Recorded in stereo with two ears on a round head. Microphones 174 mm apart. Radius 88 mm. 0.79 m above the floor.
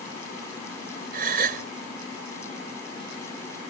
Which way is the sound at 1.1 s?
45° right (ahead or behind).